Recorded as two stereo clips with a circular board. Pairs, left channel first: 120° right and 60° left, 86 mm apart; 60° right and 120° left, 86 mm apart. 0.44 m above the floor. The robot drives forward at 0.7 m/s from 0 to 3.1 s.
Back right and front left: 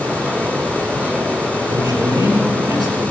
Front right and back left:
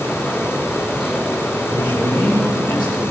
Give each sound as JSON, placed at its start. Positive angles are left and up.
{"t": 1.6, "sound": "a man speaking", "azimuth_deg": -90, "distance_m": 8.5}